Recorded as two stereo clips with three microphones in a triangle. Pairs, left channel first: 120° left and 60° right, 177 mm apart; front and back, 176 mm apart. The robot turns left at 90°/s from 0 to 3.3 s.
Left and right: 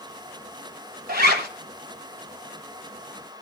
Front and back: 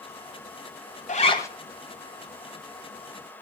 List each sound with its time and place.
1.1 s a zipper: 40° right, 1.6 m; by 1.5 s 75° right, 1.6 m